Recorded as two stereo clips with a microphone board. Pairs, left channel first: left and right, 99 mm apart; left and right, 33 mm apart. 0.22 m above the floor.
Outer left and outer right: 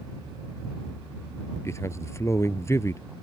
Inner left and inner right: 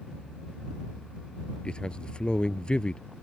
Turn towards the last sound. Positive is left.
turn(degrees=30)  # may be behind; listen again after turning